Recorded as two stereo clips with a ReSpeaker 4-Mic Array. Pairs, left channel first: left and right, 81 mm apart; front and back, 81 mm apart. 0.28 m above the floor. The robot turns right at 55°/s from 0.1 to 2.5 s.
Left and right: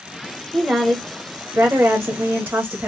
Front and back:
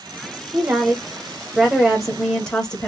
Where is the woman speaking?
175° right, 1.0 m; by 2.9 s 70° right, 1.0 m.